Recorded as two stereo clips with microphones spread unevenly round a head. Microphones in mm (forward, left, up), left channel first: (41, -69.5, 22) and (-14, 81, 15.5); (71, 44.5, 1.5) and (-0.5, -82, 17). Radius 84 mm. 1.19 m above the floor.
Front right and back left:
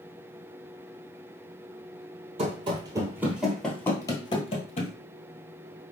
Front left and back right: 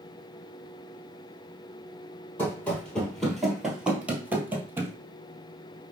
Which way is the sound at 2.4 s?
145° left.